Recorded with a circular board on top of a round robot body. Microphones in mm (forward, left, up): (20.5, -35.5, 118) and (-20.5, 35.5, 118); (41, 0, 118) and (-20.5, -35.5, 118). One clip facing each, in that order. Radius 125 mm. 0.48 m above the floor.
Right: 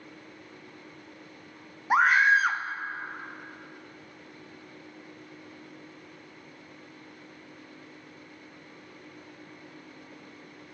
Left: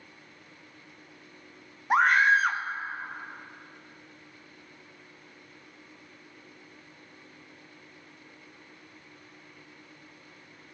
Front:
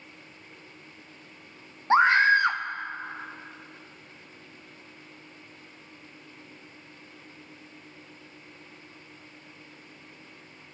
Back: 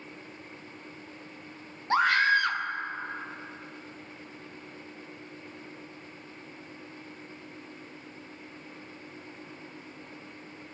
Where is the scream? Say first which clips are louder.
Even, front 4 dB; 25° left, 0.8 m.